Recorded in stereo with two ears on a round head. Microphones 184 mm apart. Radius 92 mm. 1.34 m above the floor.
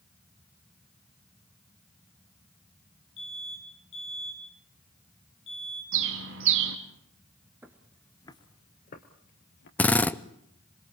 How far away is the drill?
About 0.7 m.